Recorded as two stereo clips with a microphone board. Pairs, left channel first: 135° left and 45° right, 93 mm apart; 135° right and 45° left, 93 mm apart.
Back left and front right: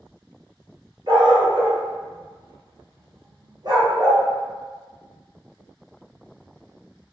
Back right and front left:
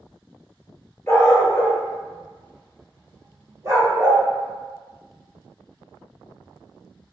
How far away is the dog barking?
About 1.2 m.